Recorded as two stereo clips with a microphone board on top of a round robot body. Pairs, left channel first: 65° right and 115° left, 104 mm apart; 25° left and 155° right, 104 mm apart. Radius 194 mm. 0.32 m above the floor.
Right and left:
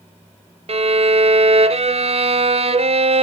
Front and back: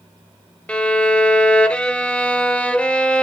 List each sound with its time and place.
0.7 s a violin: 100° left, 1.1 m